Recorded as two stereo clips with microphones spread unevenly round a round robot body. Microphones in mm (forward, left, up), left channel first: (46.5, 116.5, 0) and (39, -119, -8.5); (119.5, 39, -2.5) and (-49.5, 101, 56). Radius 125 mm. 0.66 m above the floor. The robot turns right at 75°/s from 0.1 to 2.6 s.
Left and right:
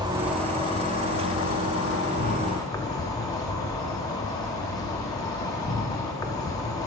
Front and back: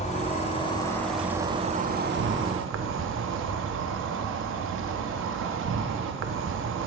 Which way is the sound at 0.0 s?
25° right.